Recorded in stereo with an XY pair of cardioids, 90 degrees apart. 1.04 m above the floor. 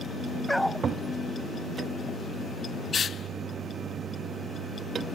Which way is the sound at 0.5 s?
5° left.